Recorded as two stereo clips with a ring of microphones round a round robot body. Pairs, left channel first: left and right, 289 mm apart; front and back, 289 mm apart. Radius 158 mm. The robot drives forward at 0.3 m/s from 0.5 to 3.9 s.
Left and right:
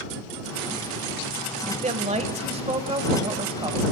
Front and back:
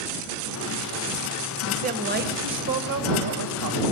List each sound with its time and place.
1.7 s a woman speaking: 135° right, 1.0 m; by 3.8 s 160° right, 1.4 m